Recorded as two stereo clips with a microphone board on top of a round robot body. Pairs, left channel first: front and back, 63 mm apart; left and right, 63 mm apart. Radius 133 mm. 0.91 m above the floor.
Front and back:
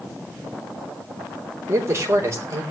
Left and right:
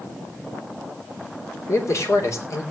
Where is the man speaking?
135° left, 3.5 m.